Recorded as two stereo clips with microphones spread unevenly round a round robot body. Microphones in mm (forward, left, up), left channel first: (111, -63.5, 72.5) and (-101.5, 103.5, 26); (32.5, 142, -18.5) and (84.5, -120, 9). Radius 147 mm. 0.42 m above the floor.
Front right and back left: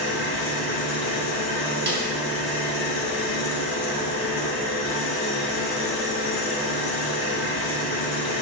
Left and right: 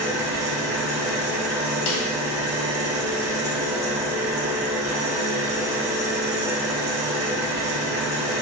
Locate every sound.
0.0 s an engine running: straight ahead, 3 m
1.9 s a snare drum: 95° left, 1.6 m